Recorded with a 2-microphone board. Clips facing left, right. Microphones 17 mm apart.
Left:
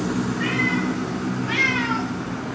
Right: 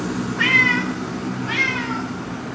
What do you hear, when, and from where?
0.4 s a cat meowing: 75° right (ahead or behind), 0.9 m; by 2.1 s 25° left (ahead or behind), 0.8 m